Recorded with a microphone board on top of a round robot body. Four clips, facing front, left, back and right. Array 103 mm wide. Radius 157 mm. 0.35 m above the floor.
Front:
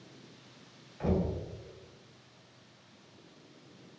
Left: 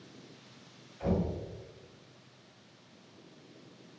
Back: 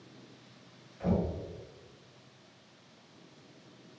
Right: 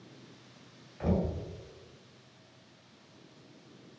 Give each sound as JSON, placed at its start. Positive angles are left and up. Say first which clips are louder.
{"t": 1.0, "sound": "knocking", "louder": "right 1 dB, even", "azimuth_deg": -50, "distance_m": 1.7}